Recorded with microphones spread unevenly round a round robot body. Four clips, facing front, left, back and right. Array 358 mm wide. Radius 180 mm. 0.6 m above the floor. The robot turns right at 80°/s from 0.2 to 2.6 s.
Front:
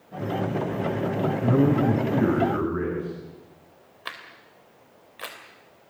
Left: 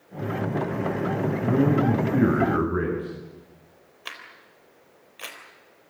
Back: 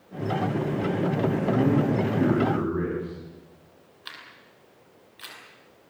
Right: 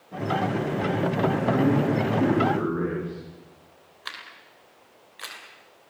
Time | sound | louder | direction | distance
1.4 | a man speaking | left 3 dB, front 4 dB | 5° left | 8.5 m
4.0 | a camera shutter | right 1 dB, front 6 dB | 10° left | 3.5 m